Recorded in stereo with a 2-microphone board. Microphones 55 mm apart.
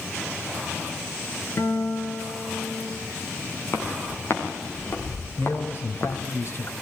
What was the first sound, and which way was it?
A guitar, 60° left (ahead or behind).